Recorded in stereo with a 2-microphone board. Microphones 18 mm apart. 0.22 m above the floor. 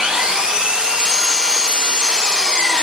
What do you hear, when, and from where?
0.0 s an engine running: 65° right (ahead or behind), 0.9 m